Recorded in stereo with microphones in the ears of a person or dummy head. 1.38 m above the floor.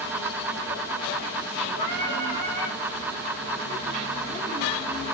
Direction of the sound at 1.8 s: 50° left (ahead or behind).